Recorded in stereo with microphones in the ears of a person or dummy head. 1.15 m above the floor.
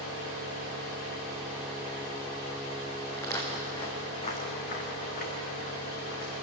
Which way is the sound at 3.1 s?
15° left (ahead or behind).